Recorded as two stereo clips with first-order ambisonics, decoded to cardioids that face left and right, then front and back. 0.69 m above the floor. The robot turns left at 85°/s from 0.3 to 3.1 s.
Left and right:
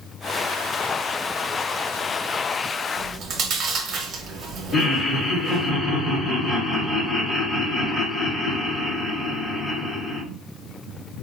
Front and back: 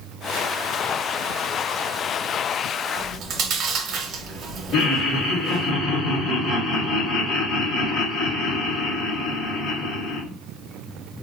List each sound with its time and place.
3.0 s chewing: 125° right, 0.8 m; by 5.7 s 135° right, 0.8 m
4.7 s laughter: 35° left, 1.7 m